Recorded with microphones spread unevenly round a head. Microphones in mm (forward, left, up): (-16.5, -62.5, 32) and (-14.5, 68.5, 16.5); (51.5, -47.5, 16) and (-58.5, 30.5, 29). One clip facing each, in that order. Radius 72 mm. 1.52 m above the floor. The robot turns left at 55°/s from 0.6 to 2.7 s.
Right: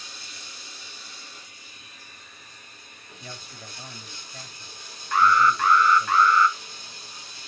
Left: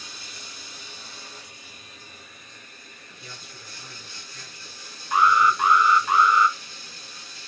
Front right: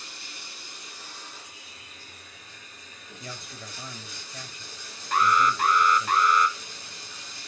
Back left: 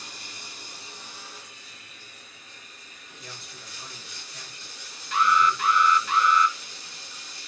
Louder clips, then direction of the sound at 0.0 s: Left 2 dB, back left 2 dB; 95° left.